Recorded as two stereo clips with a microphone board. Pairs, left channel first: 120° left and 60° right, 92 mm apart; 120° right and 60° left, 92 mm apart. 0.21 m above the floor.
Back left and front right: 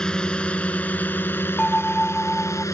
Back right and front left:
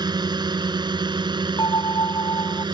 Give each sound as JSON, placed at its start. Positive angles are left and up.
{"t": 0.0, "sound": "a drone", "azimuth_deg": 40}
{"t": 1.6, "sound": "a bell", "azimuth_deg": -160}